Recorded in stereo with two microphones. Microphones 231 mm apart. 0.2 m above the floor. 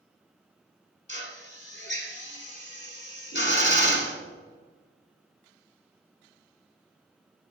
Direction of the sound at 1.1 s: 50° left (ahead or behind).